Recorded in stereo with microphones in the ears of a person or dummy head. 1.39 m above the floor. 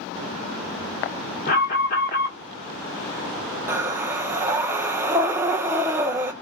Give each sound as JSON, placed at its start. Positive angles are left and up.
{"t": 1.5, "sound": "an alarm", "side_deg": 45, "distance_m": 1.7}
{"t": 3.7, "sound": "breathing", "side_deg": -15, "distance_m": 0.6}